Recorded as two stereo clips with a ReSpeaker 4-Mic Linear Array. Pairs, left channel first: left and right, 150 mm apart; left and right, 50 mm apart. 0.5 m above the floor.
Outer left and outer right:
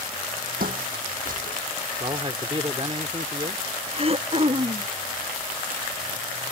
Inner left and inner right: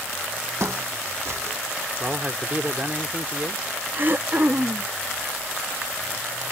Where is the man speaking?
35° right (ahead or behind).